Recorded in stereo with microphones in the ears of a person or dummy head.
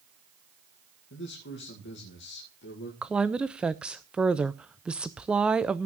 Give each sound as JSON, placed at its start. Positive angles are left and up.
{"t": 1.1, "sound": "a man speaking", "side_deg": 60, "distance_m": 2.5}
{"t": 3.0, "sound": "a woman speaking", "side_deg": -5, "distance_m": 0.5}